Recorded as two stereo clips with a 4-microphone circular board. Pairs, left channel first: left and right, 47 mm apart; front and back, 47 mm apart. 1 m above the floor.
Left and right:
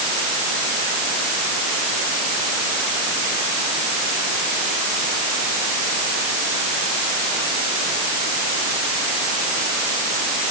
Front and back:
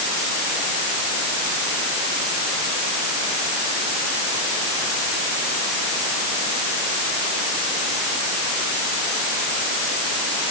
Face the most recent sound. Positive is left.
No sound to turn to.